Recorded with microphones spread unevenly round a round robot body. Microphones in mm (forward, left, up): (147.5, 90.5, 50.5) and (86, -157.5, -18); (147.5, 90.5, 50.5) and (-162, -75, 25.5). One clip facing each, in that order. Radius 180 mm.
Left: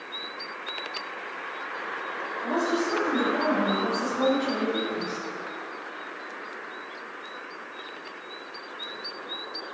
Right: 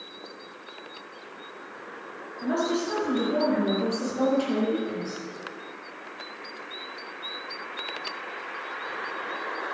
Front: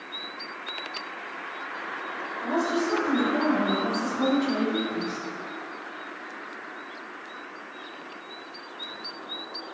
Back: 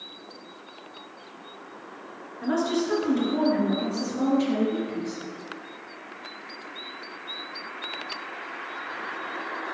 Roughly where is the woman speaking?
Behind right.